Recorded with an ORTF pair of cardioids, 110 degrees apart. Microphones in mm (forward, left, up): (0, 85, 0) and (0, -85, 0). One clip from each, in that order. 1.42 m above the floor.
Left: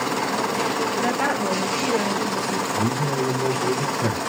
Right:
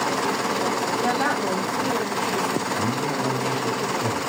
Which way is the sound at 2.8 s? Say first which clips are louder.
Left 1 dB; 60° left.